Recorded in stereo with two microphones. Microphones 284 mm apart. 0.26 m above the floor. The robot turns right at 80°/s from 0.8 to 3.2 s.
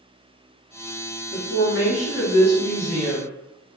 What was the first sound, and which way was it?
A woman speaking, 40° left.